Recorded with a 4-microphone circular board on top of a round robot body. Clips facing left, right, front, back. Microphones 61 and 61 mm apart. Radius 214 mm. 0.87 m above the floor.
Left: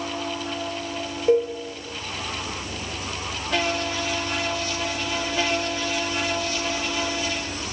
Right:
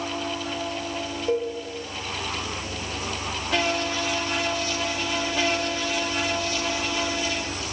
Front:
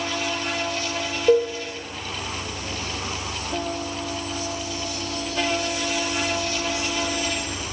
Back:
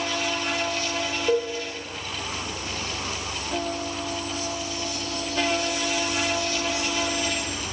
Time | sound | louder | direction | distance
1.3 | a cowbell | left 6 dB, front 6 dB | 20° left | 1.2 m